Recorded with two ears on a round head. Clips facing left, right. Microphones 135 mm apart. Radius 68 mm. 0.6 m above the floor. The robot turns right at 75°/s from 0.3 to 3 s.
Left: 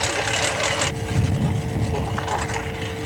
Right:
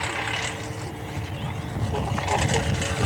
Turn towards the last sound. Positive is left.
turn(degrees=-70)  # may be behind; listen again after turning